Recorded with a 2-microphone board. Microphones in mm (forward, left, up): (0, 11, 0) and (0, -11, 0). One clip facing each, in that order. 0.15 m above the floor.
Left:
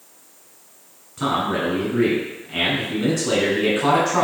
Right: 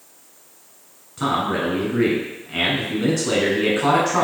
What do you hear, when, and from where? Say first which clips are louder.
1.2 s a man speaking: even; 10° right (ahead or behind), 1.2 m